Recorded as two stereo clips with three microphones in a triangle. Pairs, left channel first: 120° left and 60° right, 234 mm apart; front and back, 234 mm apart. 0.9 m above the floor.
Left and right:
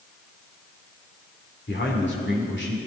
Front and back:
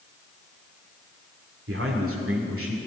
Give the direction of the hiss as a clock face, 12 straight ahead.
I don't hear a hiss.